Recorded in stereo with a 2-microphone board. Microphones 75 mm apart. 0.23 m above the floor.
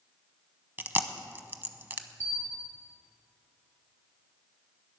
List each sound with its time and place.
0.8 s chewing: 25° right (ahead or behind), 0.8 m
2.2 s a bell: 30° left (ahead or behind), 1.8 m